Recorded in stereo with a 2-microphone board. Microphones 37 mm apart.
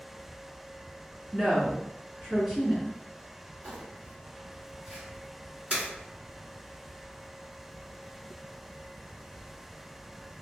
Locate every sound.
1.3 s a woman speaking: 25° right (ahead or behind), 1.1 m
3.6 s crumpling: 30° right (ahead or behind), 1.7 m